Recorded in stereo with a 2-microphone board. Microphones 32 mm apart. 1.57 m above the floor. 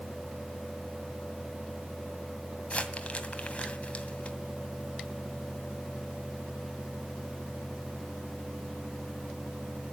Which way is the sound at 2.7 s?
45° left (ahead or behind).